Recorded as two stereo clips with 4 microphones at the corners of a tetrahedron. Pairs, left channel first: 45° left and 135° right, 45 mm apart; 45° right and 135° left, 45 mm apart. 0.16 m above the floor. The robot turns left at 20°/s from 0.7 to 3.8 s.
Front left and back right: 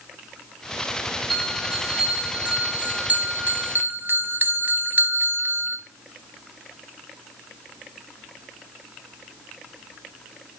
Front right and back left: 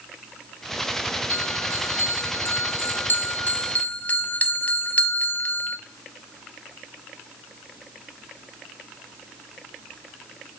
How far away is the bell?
About 0.9 m.